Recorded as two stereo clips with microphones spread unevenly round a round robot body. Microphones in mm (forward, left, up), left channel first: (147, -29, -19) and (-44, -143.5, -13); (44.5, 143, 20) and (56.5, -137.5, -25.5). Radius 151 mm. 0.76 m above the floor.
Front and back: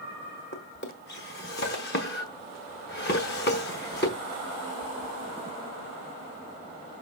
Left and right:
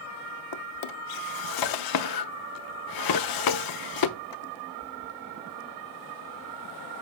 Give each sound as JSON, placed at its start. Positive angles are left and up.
{"t": 0.5, "sound": "a drawer", "azimuth_deg": 90, "distance_m": 0.8}